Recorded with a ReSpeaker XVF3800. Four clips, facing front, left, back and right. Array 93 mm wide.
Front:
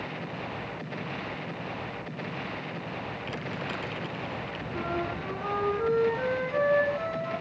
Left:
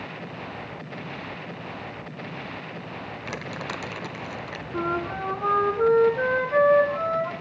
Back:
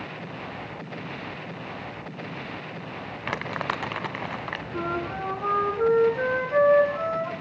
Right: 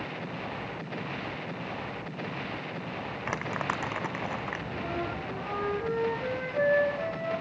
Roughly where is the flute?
Behind left.